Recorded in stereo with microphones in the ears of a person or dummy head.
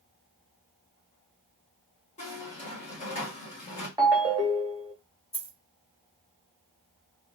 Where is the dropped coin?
40° left (ahead or behind), 1.6 m.